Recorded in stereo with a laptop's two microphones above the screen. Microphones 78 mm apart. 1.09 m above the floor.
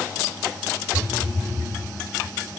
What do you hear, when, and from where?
0.9 s a phone buzzing: 20° left (ahead or behind), 2.5 m